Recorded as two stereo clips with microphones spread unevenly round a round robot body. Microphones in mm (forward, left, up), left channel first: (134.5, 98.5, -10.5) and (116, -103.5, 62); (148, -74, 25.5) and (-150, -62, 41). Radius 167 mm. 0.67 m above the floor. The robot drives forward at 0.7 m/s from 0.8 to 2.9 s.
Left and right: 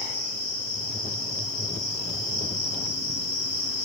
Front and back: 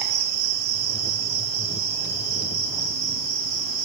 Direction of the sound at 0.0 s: 170° left.